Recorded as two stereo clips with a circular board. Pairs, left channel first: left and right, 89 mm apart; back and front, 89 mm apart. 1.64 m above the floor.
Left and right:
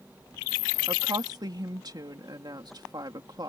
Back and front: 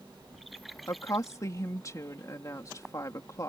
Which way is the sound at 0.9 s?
130° right.